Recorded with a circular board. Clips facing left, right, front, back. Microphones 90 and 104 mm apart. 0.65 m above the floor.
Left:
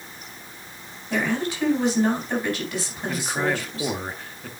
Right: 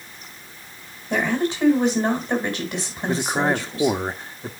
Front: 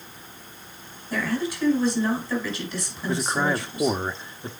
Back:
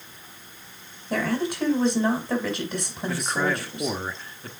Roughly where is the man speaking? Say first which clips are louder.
Right 4 dB, front 2 dB; ahead right.